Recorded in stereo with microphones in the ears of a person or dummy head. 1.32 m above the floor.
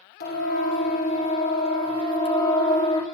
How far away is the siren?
About 3 m.